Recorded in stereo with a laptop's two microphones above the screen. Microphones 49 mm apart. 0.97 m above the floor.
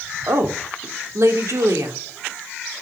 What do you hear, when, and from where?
0.3 s a woman speaking: 70° right (ahead or behind), 3.5 m